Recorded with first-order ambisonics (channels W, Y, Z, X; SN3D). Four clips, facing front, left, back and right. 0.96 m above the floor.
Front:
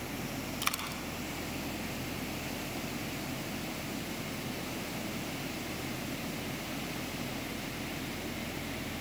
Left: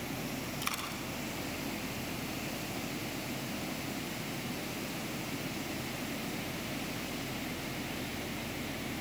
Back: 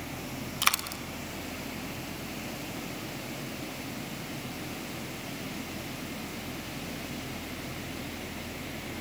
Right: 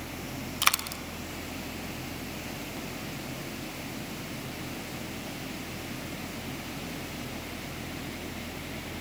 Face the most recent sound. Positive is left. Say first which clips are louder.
# right 13 dB, back 8 dB
turn(degrees=-125)